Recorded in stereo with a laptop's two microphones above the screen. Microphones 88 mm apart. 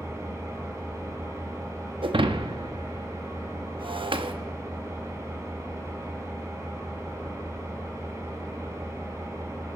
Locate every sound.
0.0 s an engine running: 35° right (ahead or behind), 2.5 m
2.0 s breaking glass: 75° right (ahead or behind), 0.7 m